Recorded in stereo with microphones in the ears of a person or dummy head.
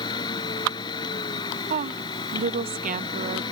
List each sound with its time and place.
0.0 s a machine running: 20° left (ahead or behind)
1.7 s a woman speaking: 35° right (ahead or behind)